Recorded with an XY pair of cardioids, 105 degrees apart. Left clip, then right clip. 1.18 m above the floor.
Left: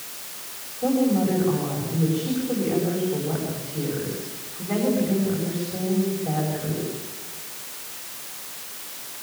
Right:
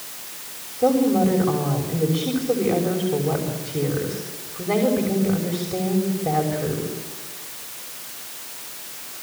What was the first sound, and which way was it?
A woman speaking, 60° right.